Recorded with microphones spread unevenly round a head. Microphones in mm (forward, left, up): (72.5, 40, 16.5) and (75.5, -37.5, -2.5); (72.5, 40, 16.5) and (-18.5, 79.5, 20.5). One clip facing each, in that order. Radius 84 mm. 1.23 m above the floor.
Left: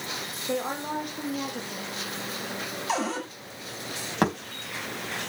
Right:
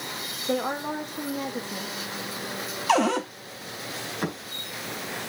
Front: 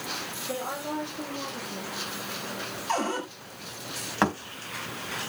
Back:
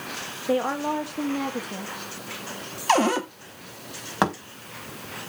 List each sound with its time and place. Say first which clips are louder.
0.5 s a woman speaking: right 2 dB, back 9 dB; 160° right, 2.0 m
2.9 s a cupboard door: right 7 dB, back 8 dB; 150° right, 1.0 m
4.2 s a thud: left 7 dB, back 2 dB; 85° left, 4 m